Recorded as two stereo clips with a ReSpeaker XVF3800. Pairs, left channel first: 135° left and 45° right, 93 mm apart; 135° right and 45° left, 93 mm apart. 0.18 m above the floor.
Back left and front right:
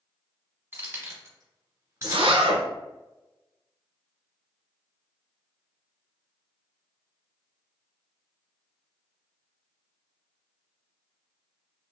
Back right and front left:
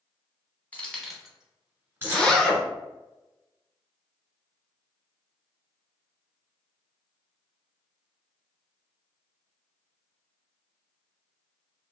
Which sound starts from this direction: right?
Keys jangling, at 0.7 s.